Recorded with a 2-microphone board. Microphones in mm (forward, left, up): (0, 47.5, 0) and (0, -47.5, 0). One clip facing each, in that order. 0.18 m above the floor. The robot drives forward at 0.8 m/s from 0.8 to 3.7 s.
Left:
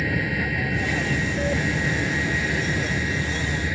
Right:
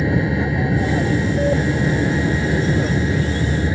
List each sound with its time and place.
0.0 s an aircraft: 25° right (ahead or behind); by 3.8 s 30° right (ahead or behind)